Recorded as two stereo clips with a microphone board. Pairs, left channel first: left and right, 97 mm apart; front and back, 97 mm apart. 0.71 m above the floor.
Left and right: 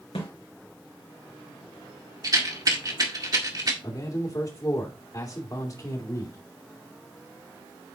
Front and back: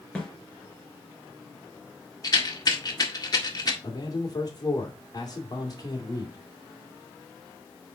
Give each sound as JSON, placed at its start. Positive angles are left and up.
{"t": 0.1, "sound": "a snare drum", "azimuth_deg": 80, "distance_m": 2.5}
{"t": 2.2, "sound": "a rattle", "azimuth_deg": -45, "distance_m": 1.8}
{"t": 3.8, "sound": "a man speaking", "azimuth_deg": 40, "distance_m": 2.5}